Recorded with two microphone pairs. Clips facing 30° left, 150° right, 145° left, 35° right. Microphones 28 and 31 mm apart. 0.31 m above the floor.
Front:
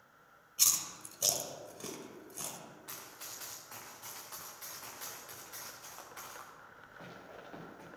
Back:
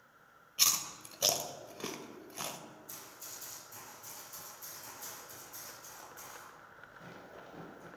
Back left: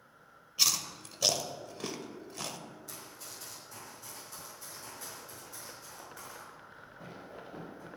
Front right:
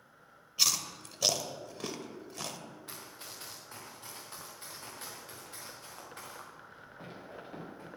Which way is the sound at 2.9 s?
15° left.